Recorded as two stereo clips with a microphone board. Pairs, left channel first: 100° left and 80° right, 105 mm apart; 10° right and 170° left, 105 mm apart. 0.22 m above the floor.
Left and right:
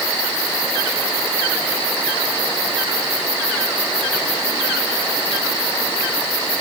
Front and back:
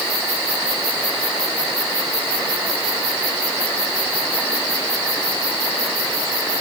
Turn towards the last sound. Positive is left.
No sound to turn to.